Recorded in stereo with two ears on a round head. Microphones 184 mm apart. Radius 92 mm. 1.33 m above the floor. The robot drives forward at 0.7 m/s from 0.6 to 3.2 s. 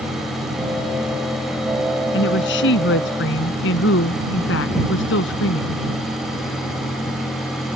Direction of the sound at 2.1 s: 60° left (ahead or behind).